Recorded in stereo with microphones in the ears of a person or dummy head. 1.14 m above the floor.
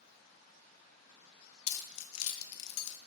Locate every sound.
1.7 s keys jangling: 80° left, 0.5 m